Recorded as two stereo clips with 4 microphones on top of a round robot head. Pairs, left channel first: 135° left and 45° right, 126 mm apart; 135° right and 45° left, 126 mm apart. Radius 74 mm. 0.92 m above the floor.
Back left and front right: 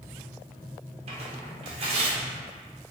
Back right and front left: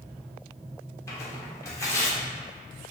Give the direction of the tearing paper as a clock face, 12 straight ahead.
2 o'clock.